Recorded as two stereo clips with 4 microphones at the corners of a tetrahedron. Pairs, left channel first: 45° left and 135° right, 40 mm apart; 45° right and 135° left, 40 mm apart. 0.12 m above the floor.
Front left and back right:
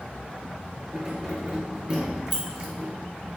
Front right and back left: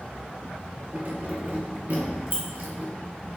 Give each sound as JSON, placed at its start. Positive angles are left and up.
{"t": 0.9, "sound": "keys jangling", "azimuth_deg": 170, "distance_m": 1.5}